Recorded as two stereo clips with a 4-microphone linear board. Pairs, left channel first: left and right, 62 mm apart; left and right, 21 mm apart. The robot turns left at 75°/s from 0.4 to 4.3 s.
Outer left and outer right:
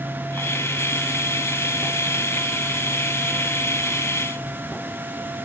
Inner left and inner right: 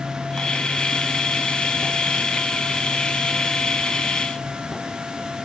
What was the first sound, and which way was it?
Only background noise.